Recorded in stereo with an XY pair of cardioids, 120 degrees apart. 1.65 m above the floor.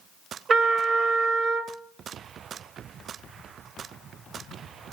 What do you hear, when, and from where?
0.5 s a trumpet: 40° right, 1.2 m